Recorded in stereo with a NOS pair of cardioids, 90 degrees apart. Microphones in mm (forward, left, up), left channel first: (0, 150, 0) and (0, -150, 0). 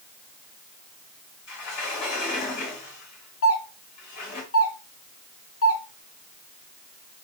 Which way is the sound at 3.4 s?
50° left.